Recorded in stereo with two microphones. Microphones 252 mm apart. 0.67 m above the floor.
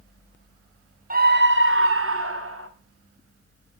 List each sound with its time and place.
1.1 s a scream: 35° right (ahead or behind), 0.8 m; by 2.7 s 60° right (ahead or behind), 1.7 m